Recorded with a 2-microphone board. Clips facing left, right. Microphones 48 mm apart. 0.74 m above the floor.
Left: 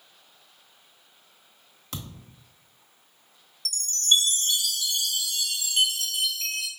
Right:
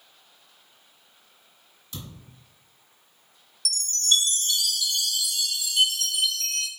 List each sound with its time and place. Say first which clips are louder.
1.9 s a thud: left 2 dB; 75° left (ahead or behind), 1.1 m
3.6 s a chime: left 1 dB; 35° left (ahead or behind), 1.0 m